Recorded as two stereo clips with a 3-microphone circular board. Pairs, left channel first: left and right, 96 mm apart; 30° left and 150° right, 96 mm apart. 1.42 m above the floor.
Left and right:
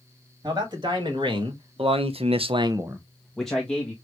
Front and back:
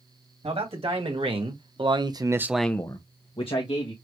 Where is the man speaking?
135° right, 2.5 m; by 3.9 s 15° left, 1.5 m.